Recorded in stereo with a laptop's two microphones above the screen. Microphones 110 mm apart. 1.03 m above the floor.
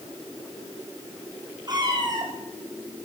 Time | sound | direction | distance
1.7 | a cat meowing | 35° right (ahead or behind) | 6 m